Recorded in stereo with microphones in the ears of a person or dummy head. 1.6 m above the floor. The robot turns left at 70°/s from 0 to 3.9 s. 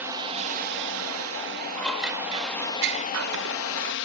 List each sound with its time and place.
0.0 s a drone: 10° right; by 4.0 s 75° left
1.8 s scissors: 15° left; by 3.9 s 135° right